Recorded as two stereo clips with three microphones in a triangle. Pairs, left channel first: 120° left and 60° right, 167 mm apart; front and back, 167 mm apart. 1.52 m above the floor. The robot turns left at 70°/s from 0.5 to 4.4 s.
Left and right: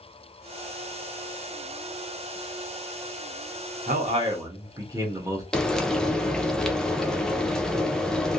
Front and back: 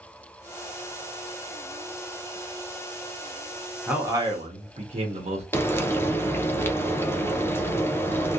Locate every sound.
3.9 s a man speaking: 95° right, 1.0 m; by 5.4 s 130° right, 1.0 m
5.5 s frying: 45° left, 0.6 m